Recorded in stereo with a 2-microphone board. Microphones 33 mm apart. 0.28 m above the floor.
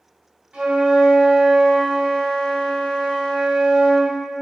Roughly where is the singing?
I don't hear singing.